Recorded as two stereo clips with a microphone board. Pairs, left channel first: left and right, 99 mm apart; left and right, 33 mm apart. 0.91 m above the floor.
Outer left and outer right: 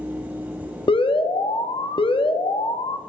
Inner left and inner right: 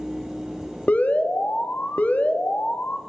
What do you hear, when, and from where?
0.9 s an alarm: 65° left (ahead or behind), 0.7 m